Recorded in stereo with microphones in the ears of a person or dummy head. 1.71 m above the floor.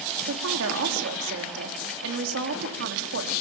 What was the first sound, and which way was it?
A woman speaking, 75° right (ahead or behind).